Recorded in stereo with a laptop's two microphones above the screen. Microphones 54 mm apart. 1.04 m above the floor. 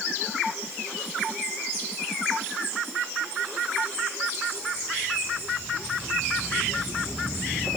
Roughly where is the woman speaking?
I don't hear a woman speaking.